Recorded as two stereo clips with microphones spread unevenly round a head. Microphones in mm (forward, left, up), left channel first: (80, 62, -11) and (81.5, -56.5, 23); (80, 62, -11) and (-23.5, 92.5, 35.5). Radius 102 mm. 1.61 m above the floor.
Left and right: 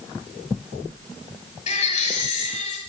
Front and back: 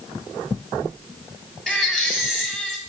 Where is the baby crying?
70° left, 6 m.